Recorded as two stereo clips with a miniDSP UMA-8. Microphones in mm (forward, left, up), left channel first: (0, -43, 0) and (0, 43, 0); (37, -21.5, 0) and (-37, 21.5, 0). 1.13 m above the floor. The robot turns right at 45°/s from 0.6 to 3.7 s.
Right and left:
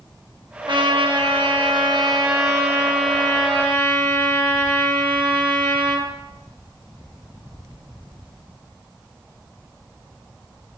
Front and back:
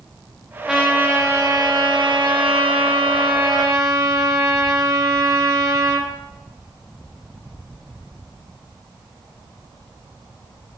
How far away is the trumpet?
About 1.2 m.